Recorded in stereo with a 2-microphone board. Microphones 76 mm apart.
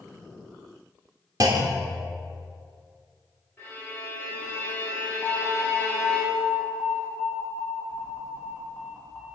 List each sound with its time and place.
1.4 s a clunk: 55° right (ahead or behind), 0.6 m
3.6 s a violin: 25° left (ahead or behind), 2.5 m
5.2 s an alarm: 10° right (ahead or behind), 1.6 m